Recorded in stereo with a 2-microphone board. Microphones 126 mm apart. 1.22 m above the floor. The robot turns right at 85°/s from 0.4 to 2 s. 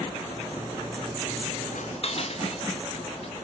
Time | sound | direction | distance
1.7 | dishes clattering | 75° left (ahead or behind) | 1.0 m